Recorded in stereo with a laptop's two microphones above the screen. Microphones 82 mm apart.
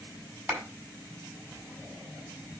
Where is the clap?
30° right (ahead or behind), 4 m.